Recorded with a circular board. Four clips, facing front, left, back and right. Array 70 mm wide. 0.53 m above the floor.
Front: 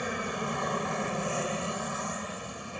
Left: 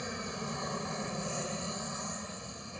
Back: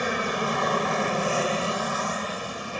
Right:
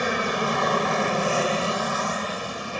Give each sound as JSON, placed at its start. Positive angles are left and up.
{"t": 0.0, "sound": "an aircraft", "azimuth_deg": -115}